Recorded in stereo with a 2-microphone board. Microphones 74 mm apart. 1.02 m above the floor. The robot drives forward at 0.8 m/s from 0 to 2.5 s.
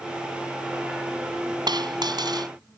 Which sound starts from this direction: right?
A dropped coin, at 1.7 s.